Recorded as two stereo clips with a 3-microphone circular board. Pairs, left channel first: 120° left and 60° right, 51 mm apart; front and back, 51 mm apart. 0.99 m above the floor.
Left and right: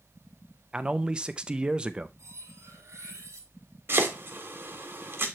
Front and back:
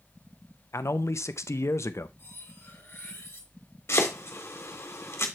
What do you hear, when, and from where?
0.7 s a man speaking: 10° left, 0.6 m
2.2 s cutlery clinking: 45° right, 1.9 m
3.9 s chopping: 25° right, 1.3 m